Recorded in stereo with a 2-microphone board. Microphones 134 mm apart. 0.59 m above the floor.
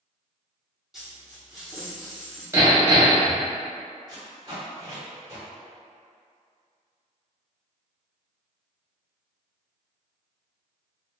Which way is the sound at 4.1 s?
30° right (ahead or behind).